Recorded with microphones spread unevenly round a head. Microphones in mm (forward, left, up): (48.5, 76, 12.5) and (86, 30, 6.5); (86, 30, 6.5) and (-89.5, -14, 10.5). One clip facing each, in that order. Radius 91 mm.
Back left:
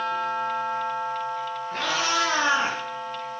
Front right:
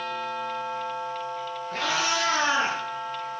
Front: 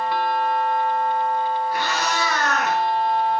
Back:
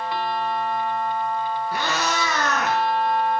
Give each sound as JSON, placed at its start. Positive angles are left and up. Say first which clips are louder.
{"t": 1.7, "sound": "a cat meowing", "louder": "back left 1 dB, front 1 dB", "azimuth_deg": -150, "distance_m": 4.0}